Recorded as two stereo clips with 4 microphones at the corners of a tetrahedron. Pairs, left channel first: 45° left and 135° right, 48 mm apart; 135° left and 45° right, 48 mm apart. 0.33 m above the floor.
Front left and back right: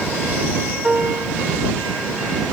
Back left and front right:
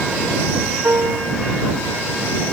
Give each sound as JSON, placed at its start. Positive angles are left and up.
{"t": 0.8, "sound": "a piano", "azimuth_deg": -70}